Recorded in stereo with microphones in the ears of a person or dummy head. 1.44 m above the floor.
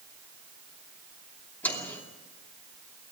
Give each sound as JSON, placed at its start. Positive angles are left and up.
{"t": 1.6, "sound": "a microwave", "side_deg": 5, "distance_m": 2.5}